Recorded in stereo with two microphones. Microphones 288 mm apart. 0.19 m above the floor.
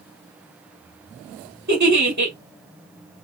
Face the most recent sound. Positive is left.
turn(degrees=-75)  # may be behind; listen again after turning